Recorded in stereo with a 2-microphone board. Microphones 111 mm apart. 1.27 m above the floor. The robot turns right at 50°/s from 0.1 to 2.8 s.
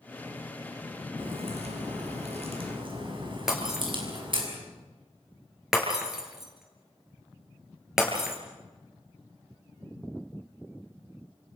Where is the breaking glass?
5° right (ahead or behind), 5 m.